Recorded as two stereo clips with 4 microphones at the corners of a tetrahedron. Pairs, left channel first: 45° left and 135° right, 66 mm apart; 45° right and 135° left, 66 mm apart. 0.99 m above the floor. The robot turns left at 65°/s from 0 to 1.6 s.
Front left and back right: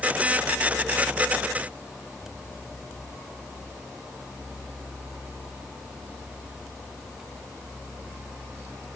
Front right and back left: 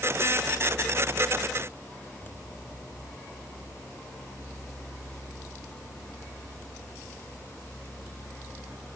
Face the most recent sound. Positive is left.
No sound to turn to.